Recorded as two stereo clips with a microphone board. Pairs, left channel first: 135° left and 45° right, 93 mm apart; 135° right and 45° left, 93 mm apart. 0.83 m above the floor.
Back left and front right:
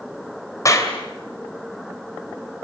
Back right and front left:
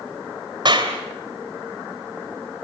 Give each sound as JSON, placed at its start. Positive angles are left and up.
{"t": 0.7, "sound": "a clap", "azimuth_deg": 80, "distance_m": 2.5}